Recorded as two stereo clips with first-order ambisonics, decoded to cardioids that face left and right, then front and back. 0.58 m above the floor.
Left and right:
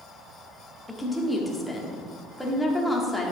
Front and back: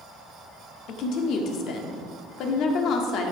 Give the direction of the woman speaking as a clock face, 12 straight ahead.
12 o'clock.